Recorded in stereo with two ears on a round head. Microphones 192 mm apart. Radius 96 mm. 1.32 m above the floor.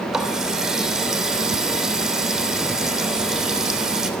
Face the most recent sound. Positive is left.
turn(degrees=0)  # may be behind; listen again after turning